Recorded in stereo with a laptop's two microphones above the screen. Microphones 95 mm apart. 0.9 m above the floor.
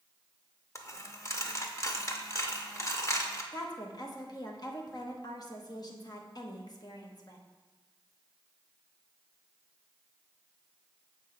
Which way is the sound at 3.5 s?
45° left (ahead or behind).